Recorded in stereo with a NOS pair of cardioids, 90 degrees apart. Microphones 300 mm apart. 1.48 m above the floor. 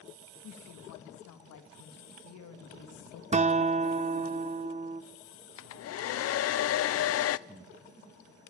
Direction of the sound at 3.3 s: 25° right.